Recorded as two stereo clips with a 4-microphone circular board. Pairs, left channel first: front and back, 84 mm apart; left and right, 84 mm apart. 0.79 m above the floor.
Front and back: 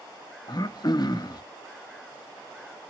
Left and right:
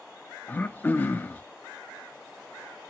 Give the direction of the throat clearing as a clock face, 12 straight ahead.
11 o'clock.